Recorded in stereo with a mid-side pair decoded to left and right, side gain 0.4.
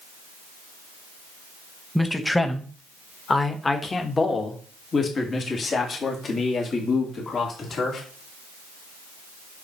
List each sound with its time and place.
1.9 s a man speaking: 5° left, 1.8 m; by 8.0 s 60° left, 4 m